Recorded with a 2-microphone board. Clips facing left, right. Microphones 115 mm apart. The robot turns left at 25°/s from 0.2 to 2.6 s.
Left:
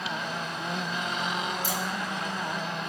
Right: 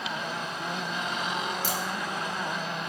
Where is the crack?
85° right, 9 m; by 1.8 s 80° right, 9 m.